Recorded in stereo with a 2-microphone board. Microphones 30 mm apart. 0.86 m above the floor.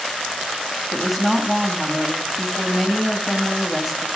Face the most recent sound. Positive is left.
turn(degrees=-5)  # may be behind; listen again after turning